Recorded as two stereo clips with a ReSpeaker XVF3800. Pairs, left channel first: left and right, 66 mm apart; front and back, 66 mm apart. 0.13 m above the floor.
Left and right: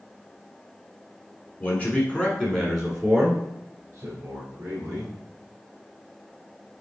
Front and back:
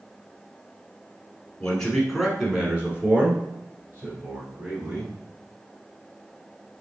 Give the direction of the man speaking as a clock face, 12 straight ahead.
10 o'clock.